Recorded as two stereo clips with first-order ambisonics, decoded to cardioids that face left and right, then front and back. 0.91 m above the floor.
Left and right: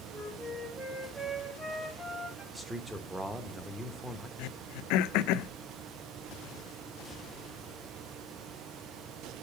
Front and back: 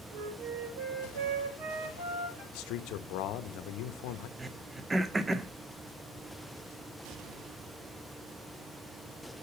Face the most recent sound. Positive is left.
turn(degrees=105)